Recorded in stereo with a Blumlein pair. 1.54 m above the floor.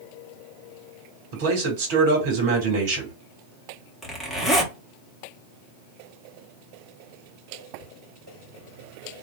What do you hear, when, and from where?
1.3 s a man speaking: 50° right, 1.7 m
4.0 s a zipper: 10° left, 1.3 m